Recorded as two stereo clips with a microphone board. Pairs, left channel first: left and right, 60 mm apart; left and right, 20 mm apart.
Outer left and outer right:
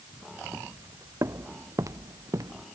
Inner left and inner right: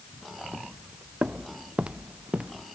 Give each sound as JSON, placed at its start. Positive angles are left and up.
{"t": 0.5, "sound": "footsteps", "side_deg": -45}